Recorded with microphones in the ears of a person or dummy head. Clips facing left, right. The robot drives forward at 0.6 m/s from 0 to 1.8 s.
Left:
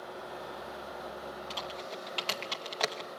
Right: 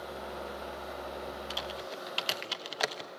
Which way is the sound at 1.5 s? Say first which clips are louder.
Right 1 dB; 10° right (ahead or behind).